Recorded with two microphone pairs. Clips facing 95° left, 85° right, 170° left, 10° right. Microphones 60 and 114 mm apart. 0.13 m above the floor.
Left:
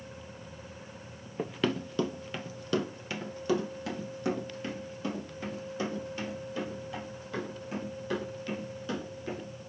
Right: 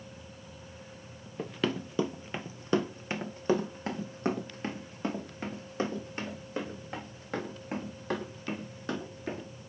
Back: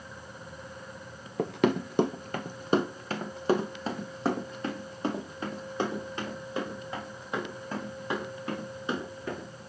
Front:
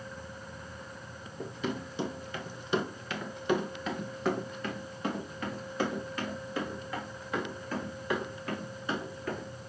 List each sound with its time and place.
1.4 s running footsteps: 175° left, 0.6 m; by 9.5 s 125° right, 5.5 m